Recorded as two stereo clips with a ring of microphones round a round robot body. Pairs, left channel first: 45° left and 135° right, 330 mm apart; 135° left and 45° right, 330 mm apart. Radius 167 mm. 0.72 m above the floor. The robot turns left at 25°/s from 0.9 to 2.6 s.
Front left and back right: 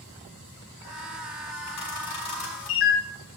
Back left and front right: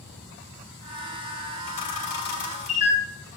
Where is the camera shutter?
90° left, 3 m; by 3.0 s 65° left, 3 m.